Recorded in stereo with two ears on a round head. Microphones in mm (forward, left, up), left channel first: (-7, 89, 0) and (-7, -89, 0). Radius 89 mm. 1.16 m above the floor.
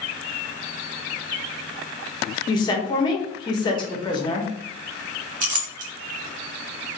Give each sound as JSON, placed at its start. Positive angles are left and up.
{"t": 2.5, "sound": "a woman speaking", "side_deg": 25, "distance_m": 0.9}
{"t": 5.4, "sound": "a clink", "side_deg": -45, "distance_m": 0.9}